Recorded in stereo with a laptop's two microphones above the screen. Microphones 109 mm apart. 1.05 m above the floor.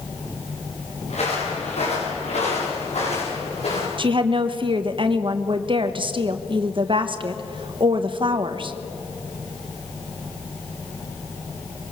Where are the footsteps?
80° left, 7 m; by 3.9 s 65° left (ahead or behind), 8.5 m.